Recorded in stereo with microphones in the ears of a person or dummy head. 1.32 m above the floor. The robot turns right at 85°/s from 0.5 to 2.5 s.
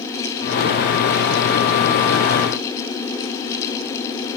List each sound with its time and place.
Only background noise.